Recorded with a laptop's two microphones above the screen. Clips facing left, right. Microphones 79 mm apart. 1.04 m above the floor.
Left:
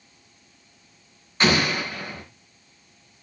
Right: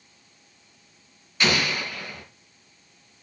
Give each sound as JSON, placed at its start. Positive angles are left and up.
{"t": 1.4, "sound": "an explosion", "side_deg": 40, "distance_m": 3.5}